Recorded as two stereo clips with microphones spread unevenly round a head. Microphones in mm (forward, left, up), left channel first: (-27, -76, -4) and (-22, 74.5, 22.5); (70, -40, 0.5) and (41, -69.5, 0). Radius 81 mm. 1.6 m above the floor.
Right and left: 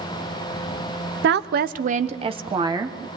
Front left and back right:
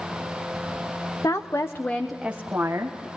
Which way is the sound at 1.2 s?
95° left.